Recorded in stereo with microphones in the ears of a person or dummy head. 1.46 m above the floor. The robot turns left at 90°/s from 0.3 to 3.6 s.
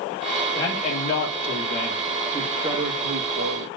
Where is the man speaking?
165° left, 1.9 m; by 3.7 s 105° right, 1.9 m.